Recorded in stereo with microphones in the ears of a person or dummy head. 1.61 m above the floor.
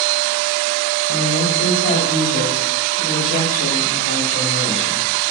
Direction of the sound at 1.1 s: 65° left (ahead or behind).